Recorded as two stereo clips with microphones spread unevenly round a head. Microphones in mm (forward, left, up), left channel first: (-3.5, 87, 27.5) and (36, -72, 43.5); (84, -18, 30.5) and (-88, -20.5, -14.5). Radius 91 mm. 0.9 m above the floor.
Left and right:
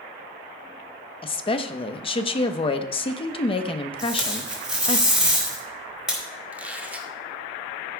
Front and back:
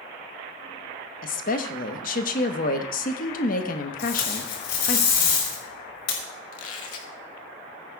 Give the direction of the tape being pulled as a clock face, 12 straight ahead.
12 o'clock.